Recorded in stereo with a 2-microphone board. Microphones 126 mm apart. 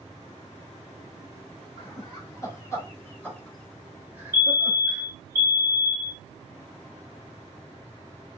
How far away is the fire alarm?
About 1.9 m.